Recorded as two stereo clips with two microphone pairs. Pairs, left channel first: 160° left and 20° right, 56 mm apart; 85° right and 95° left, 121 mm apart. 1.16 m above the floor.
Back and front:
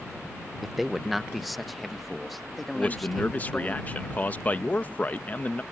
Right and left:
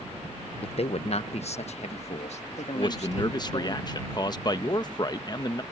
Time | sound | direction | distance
0.6 | a man speaking | 110° right | ?
2.8 | a man speaking | 140° right | ?